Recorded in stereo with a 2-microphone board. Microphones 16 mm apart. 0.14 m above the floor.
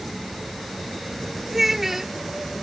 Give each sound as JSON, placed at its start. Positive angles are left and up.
{"t": 1.5, "sound": "a child speaking", "side_deg": -25}